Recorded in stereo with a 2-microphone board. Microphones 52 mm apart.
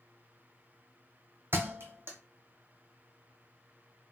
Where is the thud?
50° right (ahead or behind), 0.8 m.